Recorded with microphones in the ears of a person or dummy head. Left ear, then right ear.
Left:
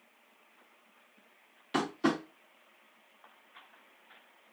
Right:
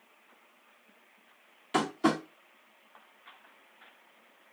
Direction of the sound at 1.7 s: Centre (ahead or behind).